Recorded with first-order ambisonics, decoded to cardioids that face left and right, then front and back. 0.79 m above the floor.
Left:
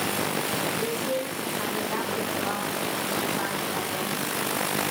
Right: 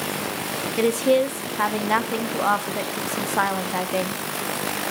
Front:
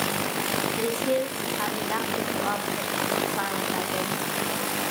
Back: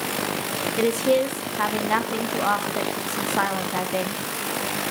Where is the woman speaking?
115° right, 1.3 m.